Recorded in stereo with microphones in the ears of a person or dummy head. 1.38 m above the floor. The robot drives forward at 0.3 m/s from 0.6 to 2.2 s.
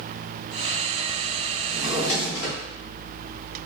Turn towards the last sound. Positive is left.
turn(degrees=60)  # may be behind; listen again after turning